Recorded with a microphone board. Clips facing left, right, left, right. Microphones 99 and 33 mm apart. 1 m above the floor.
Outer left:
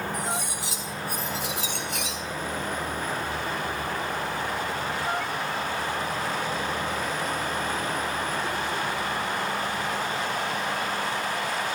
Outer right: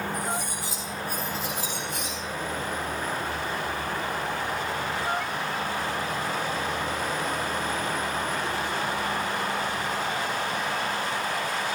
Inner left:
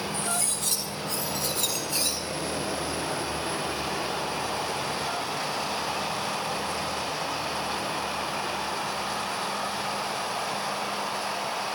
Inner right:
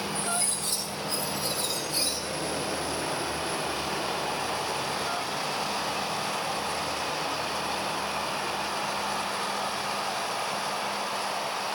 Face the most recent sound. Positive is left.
turn(degrees=70)  # may be behind; listen again after turning